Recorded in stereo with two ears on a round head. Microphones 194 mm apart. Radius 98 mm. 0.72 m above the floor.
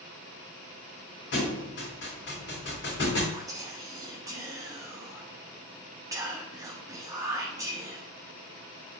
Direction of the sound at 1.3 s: 60° left (ahead or behind).